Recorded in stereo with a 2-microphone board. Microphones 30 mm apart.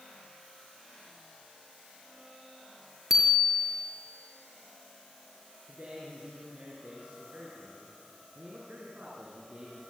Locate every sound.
3.1 s a bicycle bell: 10° right (ahead or behind), 4.5 m
5.7 s a man speaking: 50° right (ahead or behind), 6.5 m